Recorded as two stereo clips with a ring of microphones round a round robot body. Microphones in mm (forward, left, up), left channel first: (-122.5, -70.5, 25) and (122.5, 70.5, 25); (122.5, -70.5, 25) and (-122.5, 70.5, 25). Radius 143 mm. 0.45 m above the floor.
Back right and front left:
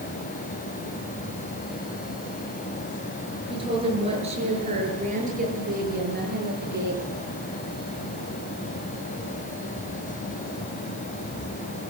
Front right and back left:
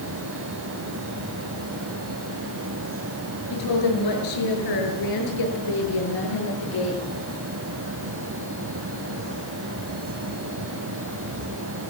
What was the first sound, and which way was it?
A woman speaking, 45° right.